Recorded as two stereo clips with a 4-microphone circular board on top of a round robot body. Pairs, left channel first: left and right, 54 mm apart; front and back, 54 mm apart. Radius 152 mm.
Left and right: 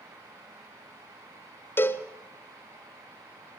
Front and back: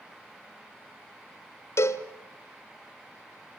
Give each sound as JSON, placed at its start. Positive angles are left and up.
{"t": 1.8, "sound": "a cowbell", "azimuth_deg": 40, "distance_m": 1.5}